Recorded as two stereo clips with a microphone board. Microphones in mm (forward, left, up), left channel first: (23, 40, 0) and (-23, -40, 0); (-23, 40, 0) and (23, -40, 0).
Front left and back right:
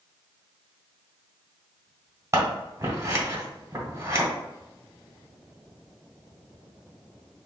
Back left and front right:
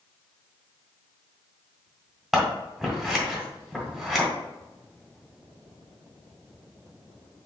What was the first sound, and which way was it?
Scissors, 145° right.